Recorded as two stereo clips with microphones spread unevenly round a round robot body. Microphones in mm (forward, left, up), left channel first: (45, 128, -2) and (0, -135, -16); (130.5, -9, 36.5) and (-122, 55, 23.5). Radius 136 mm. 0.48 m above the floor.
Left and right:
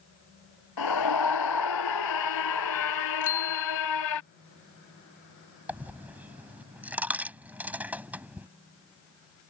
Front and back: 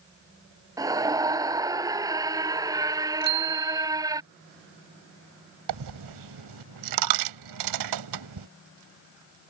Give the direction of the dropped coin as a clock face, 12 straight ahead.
6 o'clock.